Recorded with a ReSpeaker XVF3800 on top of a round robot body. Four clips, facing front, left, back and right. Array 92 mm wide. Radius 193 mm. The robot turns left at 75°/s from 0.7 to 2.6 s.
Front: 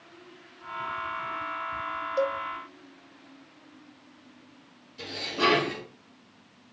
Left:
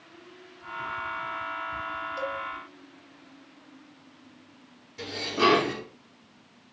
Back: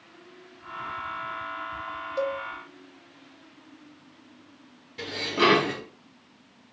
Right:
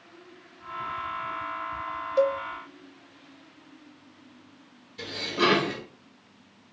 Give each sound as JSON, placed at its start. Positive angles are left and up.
{"t": 2.2, "sound": "a cowbell", "azimuth_deg": -75, "distance_m": 0.9}
{"t": 5.0, "sound": "dishes clattering", "azimuth_deg": 160, "distance_m": 4.5}